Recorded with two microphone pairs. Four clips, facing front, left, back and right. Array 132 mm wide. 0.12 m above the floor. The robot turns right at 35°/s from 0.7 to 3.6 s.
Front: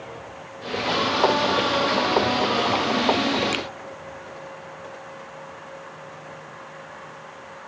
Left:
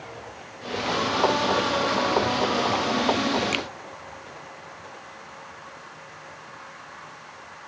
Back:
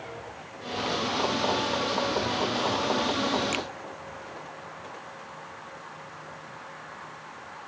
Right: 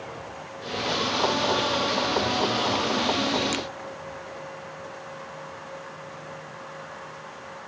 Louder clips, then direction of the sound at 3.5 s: Even, front 3 dB; 70° left.